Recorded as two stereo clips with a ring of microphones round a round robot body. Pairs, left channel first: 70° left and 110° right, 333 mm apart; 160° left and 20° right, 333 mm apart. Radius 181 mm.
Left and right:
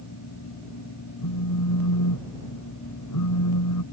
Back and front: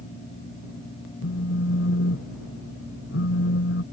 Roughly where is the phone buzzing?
Left.